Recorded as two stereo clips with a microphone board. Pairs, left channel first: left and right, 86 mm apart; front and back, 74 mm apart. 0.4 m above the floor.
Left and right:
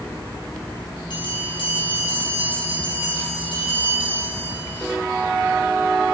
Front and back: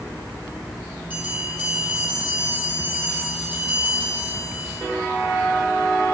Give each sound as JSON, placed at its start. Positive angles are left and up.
{"t": 1.1, "sound": "a bell", "azimuth_deg": 115, "distance_m": 4.5}